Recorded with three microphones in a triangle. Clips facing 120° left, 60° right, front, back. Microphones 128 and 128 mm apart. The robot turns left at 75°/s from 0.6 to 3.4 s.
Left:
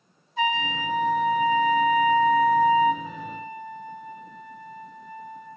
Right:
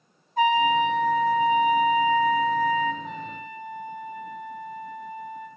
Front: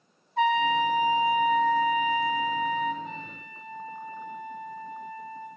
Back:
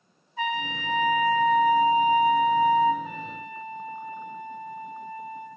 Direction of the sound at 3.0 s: 130° right.